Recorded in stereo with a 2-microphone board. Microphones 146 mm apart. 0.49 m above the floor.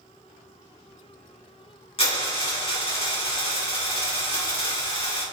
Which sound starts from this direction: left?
A dropped coin, at 2.0 s.